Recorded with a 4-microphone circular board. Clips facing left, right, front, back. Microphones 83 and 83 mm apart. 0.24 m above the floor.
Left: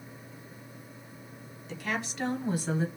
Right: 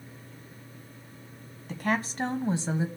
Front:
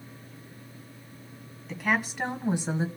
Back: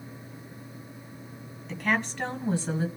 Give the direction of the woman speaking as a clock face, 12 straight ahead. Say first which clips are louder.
Right 5 dB, even; 3 o'clock.